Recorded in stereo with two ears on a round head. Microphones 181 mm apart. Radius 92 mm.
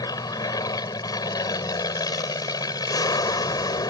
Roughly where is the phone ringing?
No phone ringing in this recording.